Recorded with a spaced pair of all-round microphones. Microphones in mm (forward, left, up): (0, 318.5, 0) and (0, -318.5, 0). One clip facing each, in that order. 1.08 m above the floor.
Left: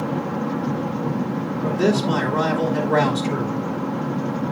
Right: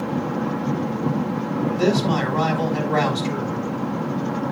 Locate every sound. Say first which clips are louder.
1.6 s a man speaking: even; 70° left (ahead or behind), 3 m